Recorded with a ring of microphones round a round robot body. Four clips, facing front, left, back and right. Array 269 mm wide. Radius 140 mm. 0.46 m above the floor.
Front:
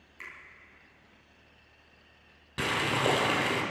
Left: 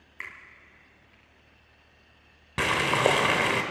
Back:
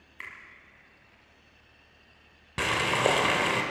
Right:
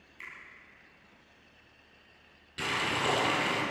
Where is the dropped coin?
I don't hear a dropped coin.